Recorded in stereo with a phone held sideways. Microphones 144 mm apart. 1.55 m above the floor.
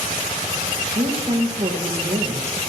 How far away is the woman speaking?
About 1.5 m.